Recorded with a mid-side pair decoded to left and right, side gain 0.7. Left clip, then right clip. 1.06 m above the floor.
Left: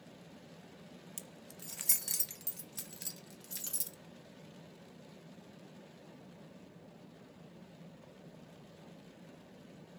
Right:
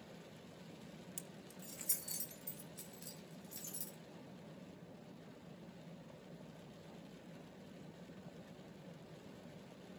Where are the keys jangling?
15° left, 1.1 m; by 4.0 s 75° left, 3.5 m.